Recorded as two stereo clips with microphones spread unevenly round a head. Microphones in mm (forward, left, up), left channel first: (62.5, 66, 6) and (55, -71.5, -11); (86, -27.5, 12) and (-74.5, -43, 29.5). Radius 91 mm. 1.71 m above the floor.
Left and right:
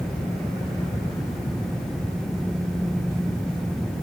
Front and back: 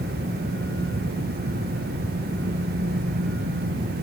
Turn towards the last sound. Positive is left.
No sound to turn to.